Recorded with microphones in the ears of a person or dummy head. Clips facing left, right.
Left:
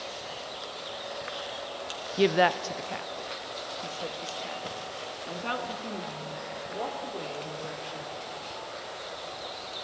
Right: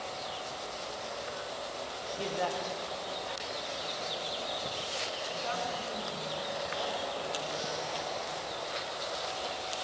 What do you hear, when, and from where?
2.2 s a woman speaking: 70° left (ahead or behind), 0.6 m; by 8.4 s 60° left (ahead or behind), 3.5 m